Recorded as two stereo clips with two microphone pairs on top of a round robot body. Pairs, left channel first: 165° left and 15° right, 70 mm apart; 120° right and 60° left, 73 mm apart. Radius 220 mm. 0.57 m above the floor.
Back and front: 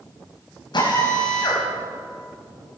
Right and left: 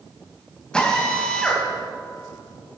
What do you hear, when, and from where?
0.7 s a drill: 160° left, 4 m